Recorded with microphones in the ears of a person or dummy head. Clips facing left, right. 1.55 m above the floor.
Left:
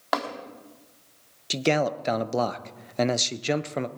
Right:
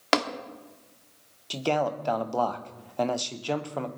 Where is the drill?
No drill in this recording.